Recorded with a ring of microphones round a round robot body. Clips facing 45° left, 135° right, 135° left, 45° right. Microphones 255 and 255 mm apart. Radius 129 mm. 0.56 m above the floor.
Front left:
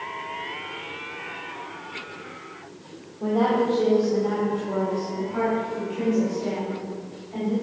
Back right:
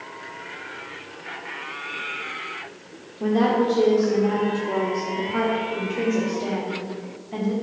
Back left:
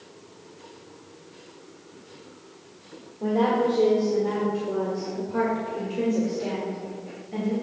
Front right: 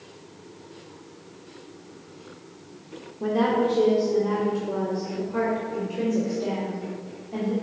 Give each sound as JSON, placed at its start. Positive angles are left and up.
{"t": 3.2, "sound": "a woman speaking", "azimuth_deg": -95, "distance_m": 1.5}